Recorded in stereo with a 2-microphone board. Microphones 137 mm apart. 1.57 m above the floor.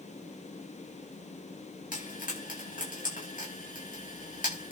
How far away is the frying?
About 9 m.